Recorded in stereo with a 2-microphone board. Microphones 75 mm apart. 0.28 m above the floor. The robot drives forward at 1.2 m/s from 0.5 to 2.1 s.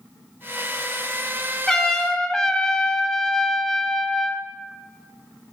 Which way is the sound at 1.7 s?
5° left (ahead or behind).